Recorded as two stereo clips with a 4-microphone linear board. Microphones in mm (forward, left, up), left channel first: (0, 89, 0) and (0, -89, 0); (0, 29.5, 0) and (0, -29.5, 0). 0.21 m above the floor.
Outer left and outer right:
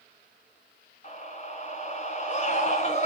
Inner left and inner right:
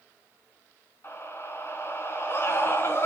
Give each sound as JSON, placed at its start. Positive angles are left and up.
{"t": 1.0, "sound": "a scream", "side_deg": 40, "distance_m": 2.5}